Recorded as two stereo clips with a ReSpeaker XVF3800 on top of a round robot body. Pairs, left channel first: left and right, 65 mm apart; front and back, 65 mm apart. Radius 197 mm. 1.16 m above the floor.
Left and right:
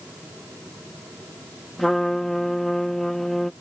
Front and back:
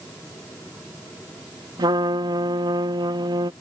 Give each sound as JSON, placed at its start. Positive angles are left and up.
{"t": 1.8, "sound": "a trumpet", "azimuth_deg": 175}